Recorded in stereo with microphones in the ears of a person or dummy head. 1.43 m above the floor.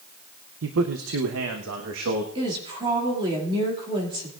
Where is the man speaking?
65° right (ahead or behind), 0.8 m; by 2.2 s 70° right (ahead or behind), 1.7 m.